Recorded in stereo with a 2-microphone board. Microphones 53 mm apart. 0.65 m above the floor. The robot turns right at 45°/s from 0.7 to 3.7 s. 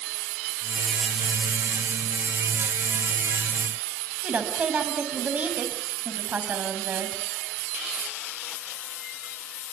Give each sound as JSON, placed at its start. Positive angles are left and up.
{"t": 4.2, "sound": "a woman speaking", "side_deg": -30, "distance_m": 5.0}